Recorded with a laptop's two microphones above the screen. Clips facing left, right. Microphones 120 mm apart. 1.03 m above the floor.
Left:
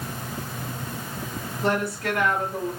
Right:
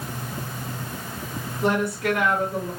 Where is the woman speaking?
20° right (ahead or behind), 1.7 m.